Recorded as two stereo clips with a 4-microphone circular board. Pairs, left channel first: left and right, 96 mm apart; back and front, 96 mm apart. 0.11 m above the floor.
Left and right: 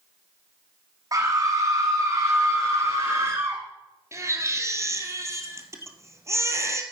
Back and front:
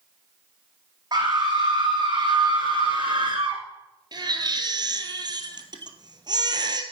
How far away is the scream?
About 6 m.